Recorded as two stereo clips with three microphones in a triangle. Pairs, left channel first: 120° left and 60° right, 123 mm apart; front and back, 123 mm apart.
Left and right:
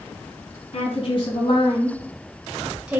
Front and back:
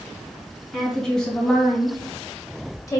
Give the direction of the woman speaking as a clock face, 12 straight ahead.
9 o'clock.